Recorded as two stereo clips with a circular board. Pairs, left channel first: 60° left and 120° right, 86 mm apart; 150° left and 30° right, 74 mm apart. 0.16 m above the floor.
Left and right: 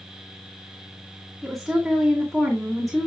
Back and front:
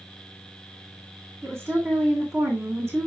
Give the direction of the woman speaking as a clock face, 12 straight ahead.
1 o'clock.